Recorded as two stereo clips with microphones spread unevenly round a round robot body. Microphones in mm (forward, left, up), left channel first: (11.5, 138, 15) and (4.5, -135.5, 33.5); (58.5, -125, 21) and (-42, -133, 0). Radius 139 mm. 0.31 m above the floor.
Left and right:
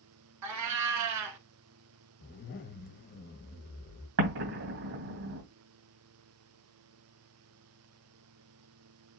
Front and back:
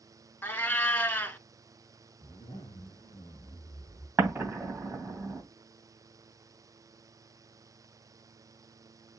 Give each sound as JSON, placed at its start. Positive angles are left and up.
{"t": 0.4, "sound": "a cat meowing", "azimuth_deg": -65, "distance_m": 0.9}
{"t": 2.2, "sound": "a zipper", "azimuth_deg": 55, "distance_m": 1.2}
{"t": 4.2, "sound": "an explosion", "azimuth_deg": -110, "distance_m": 2.5}